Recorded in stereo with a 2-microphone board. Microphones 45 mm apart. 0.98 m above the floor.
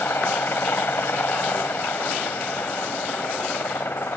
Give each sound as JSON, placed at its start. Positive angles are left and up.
{"t": 0.0, "sound": "a helicopter", "side_deg": 60}